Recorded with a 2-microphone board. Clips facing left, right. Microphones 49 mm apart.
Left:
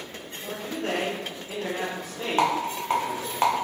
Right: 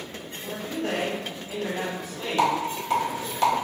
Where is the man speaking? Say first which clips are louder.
Right 1 dB; 55° left (ahead or behind), 1.2 m.